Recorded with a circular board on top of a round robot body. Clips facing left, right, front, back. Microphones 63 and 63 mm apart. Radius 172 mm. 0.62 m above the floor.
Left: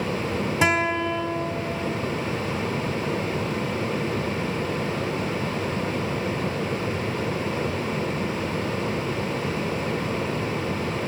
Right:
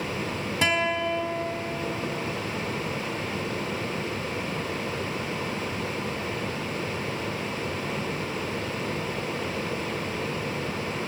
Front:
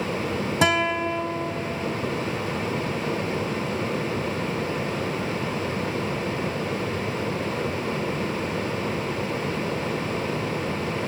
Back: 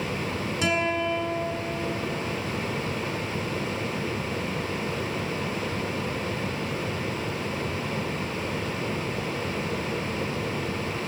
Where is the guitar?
15° left, 1.5 m.